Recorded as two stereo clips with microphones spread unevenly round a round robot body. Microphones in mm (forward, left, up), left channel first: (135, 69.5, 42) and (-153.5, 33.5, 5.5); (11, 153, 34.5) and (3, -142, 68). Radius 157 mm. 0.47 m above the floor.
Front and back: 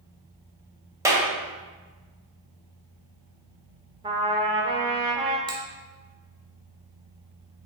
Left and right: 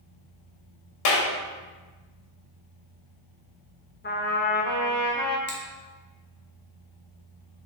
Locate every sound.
1.1 s a clap: 110° left, 1.7 m
4.0 s a trumpet: 125° left, 1.2 m
5.5 s a finger snap: 115° left, 2.0 m